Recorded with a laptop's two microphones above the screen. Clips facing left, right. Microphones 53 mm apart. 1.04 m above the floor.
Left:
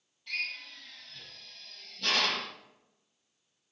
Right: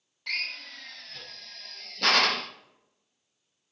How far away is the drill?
About 0.7 m.